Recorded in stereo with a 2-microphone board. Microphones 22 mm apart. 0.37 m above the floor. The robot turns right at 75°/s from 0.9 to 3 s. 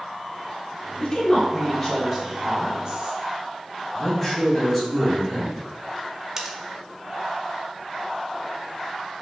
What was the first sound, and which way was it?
A woman speaking, 75° left.